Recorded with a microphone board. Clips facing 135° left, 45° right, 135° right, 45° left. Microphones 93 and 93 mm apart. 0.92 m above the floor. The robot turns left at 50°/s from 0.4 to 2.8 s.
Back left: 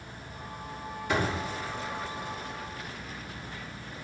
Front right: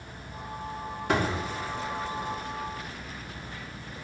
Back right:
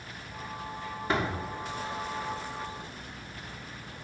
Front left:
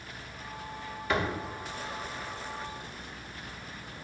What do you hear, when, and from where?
1.1 s a door slam: 75° right, 1.8 m; by 1.4 s 95° right, 1.8 m